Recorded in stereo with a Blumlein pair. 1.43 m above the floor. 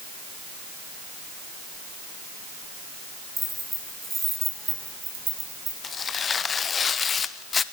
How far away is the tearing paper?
About 1.2 m.